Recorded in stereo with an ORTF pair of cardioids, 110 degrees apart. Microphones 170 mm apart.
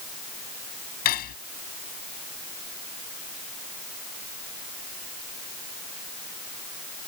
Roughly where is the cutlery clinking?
Ahead left.